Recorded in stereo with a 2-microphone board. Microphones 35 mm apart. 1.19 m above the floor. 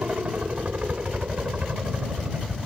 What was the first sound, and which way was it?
A helicopter, 45° right (ahead or behind).